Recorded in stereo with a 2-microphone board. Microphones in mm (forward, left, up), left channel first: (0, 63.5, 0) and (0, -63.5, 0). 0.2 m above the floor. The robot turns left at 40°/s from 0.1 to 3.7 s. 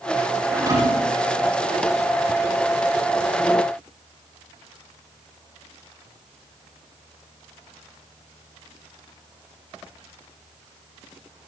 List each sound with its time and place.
0.5 s a thud: 25° right (ahead or behind), 7 m; by 1.2 s 50° right (ahead or behind), 7 m